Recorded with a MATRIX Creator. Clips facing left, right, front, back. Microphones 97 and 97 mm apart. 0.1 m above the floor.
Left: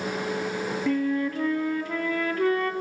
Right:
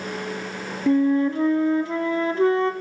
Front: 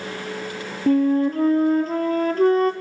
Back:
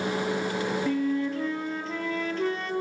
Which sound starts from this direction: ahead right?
A flute, at 0.9 s.